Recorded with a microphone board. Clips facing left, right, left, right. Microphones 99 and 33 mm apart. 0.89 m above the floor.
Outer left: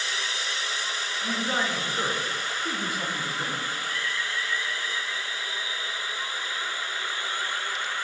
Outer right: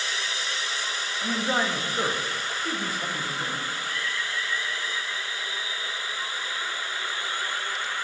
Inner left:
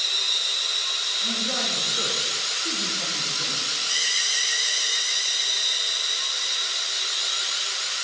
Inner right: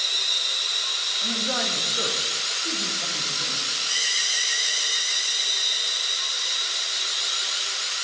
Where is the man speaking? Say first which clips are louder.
Outer right 2 dB, even; 20° right (ahead or behind), 1.7 m; by 3.6 s 20° left (ahead or behind), 1.8 m.